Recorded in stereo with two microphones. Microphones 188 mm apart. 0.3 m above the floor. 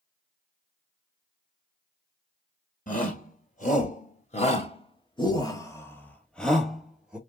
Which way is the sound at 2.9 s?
45° left (ahead or behind).